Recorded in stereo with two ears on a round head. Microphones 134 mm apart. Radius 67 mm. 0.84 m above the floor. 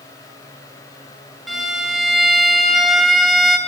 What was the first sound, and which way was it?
A violin, centre (ahead or behind).